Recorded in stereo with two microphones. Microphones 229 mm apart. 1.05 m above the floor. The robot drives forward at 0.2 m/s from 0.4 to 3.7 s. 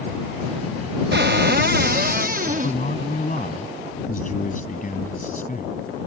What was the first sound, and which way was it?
A cupboard door, 50° right (ahead or behind).